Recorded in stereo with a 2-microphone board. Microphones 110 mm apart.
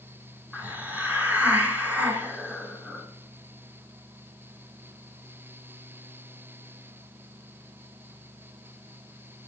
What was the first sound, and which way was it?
A hiss, 15° right (ahead or behind).